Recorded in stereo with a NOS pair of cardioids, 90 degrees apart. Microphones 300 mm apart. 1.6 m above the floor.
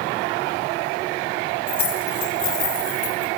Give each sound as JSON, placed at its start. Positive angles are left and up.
{"t": 1.7, "sound": "keys jangling", "azimuth_deg": 70, "distance_m": 5.0}